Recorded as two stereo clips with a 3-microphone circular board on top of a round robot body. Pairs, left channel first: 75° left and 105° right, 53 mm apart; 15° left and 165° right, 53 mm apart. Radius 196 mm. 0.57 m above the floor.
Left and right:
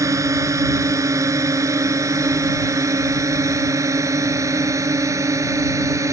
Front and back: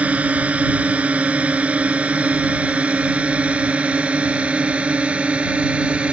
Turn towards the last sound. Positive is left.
turn(degrees=-100)